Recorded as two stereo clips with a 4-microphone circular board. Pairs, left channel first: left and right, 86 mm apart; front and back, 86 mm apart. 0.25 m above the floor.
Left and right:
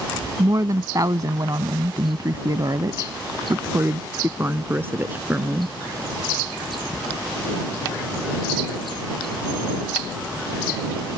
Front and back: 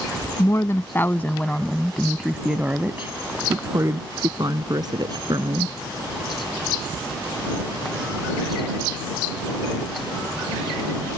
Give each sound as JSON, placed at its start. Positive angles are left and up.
{"t": 0.4, "sound": "a woman speaking", "azimuth_deg": -50}